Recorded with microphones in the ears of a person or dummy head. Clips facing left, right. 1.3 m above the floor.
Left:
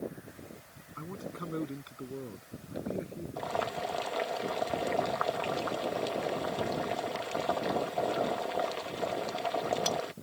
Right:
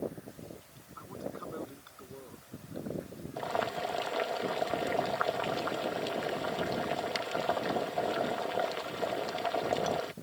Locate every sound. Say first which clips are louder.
1.0 s a man speaking: even; 40° left (ahead or behind); by 3.3 s 35° left (ahead or behind)
3.4 s boiling: right 1 dB; 5° right (ahead or behind)